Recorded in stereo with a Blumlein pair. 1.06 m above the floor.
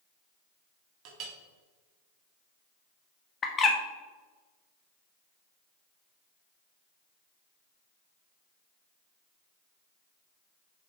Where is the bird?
20° left, 1.0 m.